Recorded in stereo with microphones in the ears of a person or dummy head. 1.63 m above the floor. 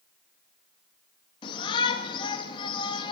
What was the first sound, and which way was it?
A shout, 25° left (ahead or behind).